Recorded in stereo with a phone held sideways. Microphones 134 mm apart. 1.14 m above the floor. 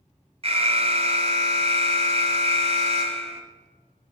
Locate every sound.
0.4 s an alarm: 50° right (ahead or behind), 0.6 m